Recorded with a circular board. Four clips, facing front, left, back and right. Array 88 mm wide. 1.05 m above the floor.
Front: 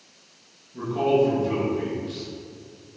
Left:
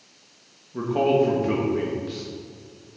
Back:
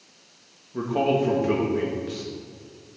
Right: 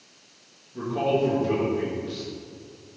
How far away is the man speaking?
About 1.7 m.